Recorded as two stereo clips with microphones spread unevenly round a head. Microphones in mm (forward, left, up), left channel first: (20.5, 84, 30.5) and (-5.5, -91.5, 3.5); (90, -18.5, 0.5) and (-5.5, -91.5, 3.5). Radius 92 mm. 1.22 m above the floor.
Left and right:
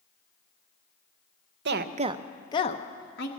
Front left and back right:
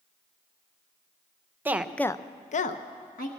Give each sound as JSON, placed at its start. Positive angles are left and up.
{"t": 1.6, "sound": "a woman speaking", "azimuth_deg": -70, "distance_m": 0.7}